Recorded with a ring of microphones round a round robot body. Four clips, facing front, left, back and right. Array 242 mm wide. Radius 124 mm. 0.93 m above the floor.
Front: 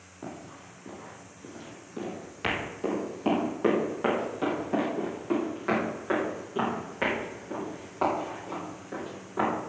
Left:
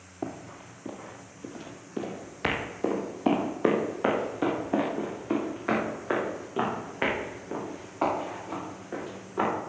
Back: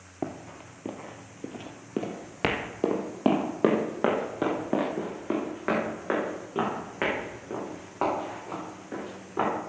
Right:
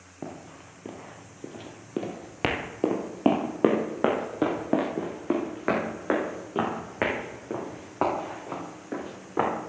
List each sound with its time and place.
0.2 s running footsteps: 175° left, 1.7 m; by 9.5 s 95° right, 6 m